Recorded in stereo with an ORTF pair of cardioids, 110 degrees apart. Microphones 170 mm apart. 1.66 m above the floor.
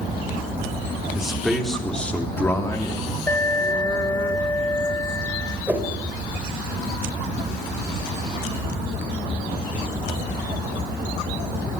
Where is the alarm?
15° left, 3 m.